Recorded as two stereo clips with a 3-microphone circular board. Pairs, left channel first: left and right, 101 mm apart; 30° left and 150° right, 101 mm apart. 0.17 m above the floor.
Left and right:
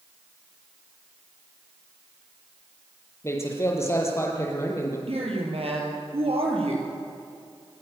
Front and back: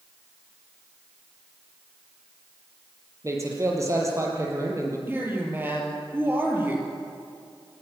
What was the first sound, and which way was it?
A man speaking, 150° left.